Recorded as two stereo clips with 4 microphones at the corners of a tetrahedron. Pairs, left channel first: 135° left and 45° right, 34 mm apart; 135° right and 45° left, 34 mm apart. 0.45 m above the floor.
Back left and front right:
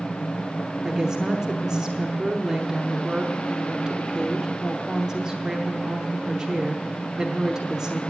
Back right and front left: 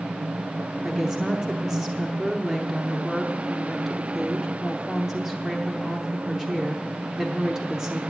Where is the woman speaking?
15° right, 0.9 m.